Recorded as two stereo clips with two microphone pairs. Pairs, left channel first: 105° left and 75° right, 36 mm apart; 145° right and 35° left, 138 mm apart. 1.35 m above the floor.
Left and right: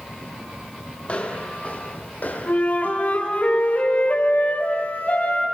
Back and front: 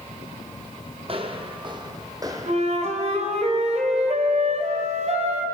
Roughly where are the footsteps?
Ahead left.